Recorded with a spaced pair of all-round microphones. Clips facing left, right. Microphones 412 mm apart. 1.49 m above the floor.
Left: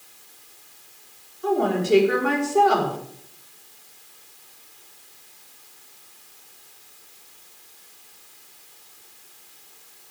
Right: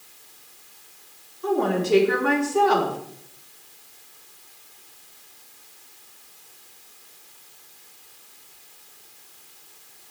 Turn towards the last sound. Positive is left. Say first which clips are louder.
# left 1 dB
turn(degrees=-5)  # may be behind; listen again after turning